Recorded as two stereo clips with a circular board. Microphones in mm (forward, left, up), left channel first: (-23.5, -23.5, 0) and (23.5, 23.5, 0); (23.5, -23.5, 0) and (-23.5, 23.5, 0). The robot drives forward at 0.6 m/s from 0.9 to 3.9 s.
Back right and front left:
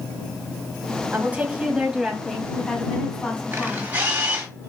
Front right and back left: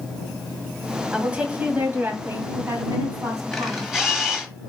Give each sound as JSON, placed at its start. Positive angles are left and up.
{"t": 1.1, "sound": "a woman speaking", "azimuth_deg": 75, "distance_m": 1.2}
{"t": 3.5, "sound": "a camera shutter", "azimuth_deg": 40, "distance_m": 1.4}